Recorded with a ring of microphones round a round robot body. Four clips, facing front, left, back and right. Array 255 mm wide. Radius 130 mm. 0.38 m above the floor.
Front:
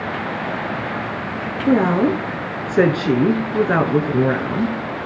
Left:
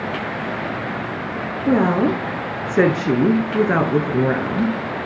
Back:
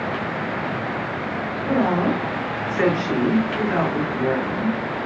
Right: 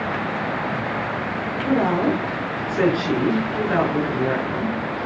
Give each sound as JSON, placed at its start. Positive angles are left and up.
{"t": 1.7, "sound": "a woman speaking", "azimuth_deg": 40, "distance_m": 5.5}